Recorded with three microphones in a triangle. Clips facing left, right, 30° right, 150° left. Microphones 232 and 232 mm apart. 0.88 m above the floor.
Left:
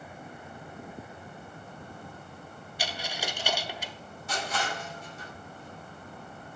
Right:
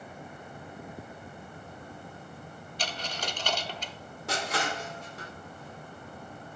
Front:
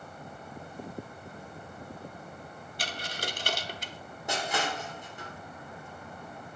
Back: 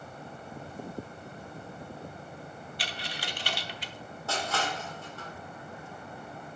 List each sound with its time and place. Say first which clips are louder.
2.8 s a dropped coin: left 1 dB, front 4 dB; 10° left, 0.8 m
4.3 s crushing: right 2 dB, front 1 dB; 105° right, 3 m